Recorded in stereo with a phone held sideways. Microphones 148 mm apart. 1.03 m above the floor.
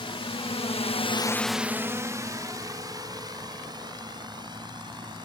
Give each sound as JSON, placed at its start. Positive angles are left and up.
{"t": 0.0, "sound": "a drone", "side_deg": 40}